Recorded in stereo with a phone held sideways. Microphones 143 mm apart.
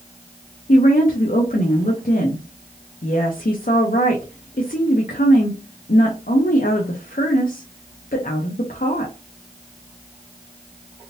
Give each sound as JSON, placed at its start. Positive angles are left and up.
{"t": 0.7, "sound": "a woman speaking", "side_deg": 75, "distance_m": 0.7}